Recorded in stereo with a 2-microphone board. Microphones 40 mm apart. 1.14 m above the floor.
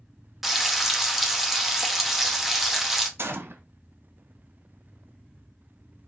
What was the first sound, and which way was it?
Frying, 5° right (ahead or behind).